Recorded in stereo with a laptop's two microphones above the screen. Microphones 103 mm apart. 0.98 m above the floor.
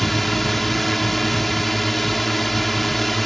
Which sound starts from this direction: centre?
A drone, at 0.0 s.